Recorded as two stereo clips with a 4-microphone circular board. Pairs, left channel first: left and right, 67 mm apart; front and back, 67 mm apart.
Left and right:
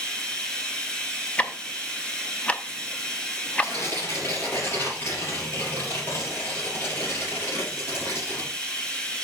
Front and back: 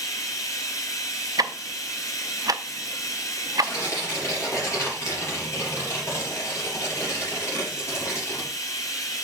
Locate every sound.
0.0 s running water: 15° left, 1.5 m
1.4 s ticking: 160° left, 0.6 m
3.6 s tearing paper: 45° left, 5.5 m